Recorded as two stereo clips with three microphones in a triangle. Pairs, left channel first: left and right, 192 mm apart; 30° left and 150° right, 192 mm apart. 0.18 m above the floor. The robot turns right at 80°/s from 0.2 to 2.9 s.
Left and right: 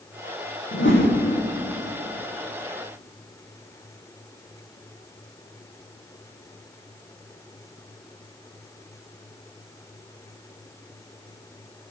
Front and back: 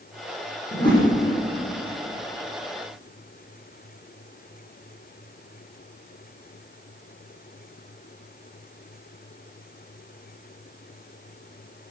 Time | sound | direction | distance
0.7 | a whoosh | 80° left | 7.5 m